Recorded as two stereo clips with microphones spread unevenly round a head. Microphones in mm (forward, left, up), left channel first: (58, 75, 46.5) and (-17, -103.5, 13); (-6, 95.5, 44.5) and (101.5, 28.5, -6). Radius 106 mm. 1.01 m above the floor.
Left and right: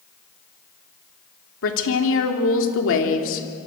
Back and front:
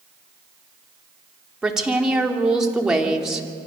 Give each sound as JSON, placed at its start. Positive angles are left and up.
{"t": 1.6, "sound": "a woman speaking", "azimuth_deg": 50, "distance_m": 3.0}